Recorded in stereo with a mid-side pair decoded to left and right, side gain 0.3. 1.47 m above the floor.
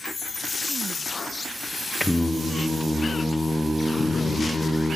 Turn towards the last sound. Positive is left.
turn(degrees=20)